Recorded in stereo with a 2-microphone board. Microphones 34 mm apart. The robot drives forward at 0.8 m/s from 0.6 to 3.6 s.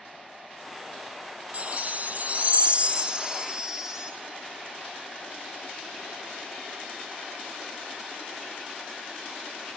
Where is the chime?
40° right (ahead or behind), 0.7 m; by 4.1 s 20° right (ahead or behind), 1.4 m.